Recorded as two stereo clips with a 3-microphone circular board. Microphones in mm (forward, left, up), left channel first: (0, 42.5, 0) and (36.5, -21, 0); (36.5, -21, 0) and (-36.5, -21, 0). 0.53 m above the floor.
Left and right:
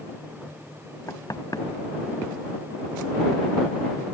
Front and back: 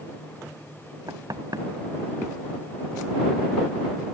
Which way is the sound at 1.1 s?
155° left.